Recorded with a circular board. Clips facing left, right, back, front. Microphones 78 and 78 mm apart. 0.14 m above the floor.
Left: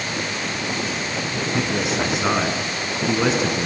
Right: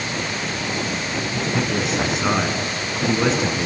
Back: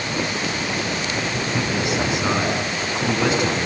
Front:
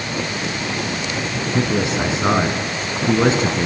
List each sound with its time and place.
1.5 s a man speaking: 5° left, 1.5 m